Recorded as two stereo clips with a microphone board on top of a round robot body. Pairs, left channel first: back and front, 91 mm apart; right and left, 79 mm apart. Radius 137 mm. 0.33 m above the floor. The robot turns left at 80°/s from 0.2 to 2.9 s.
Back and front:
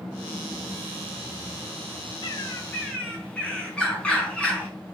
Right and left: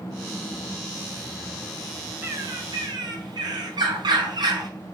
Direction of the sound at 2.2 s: 155° left.